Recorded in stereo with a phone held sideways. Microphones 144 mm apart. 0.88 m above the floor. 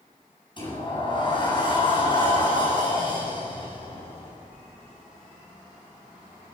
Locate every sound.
0.6 s a sliding door: 35° left (ahead or behind), 8.5 m